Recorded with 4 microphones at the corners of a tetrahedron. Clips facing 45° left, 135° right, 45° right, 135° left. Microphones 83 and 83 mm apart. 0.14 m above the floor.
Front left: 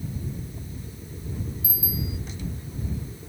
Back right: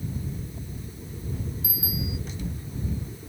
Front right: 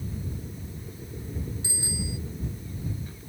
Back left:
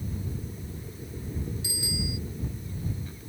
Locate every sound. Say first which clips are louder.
1.6 s a bicycle bell: even, even; 100° right